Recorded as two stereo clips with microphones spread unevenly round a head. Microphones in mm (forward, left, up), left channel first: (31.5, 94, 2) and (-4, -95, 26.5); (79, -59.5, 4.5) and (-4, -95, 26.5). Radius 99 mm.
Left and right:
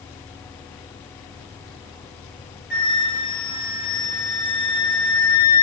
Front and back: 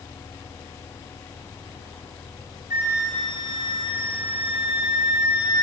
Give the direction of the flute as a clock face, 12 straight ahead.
8 o'clock.